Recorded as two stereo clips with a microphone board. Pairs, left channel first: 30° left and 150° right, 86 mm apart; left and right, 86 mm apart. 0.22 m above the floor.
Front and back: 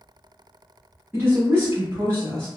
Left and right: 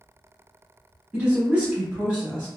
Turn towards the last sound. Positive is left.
turn(degrees=-155)